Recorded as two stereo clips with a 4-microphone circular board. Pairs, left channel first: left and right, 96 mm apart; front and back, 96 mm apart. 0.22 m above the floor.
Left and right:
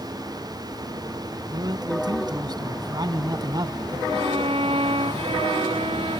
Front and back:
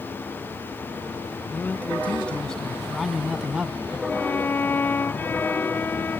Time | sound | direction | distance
1.5 | a man speaking | 65° right | ?
4.1 | a violin | 70° right | ?